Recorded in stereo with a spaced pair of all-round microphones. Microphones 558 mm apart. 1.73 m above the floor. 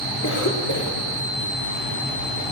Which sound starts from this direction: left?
A cough, at 0.2 s.